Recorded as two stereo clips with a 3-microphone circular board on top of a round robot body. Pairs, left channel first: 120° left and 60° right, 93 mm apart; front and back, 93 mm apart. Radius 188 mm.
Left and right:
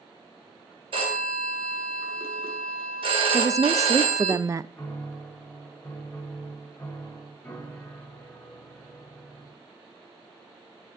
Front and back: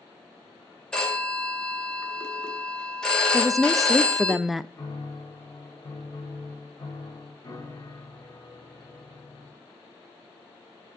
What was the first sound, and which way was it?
A phone ringing, 85° right.